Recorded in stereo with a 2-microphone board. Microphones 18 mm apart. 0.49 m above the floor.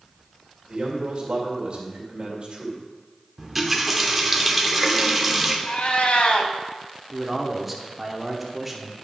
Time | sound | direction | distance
0.7 | a man speaking | 50° right (ahead or behind) | 2 m
3.4 | a running tap | 10° right (ahead or behind) | 0.8 m
5.7 | a cat meowing | 75° left (ahead or behind) | 0.8 m
7.1 | a man speaking | 10° right (ahead or behind) | 0.9 m